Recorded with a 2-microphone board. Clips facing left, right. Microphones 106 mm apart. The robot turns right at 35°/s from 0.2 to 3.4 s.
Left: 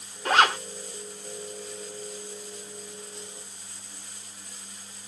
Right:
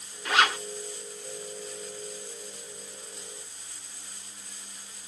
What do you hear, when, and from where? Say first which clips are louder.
0.2 s a zipper: left 4 dB; 40° left (ahead or behind), 0.8 m; by 0.6 s 35° left (ahead or behind), 0.8 m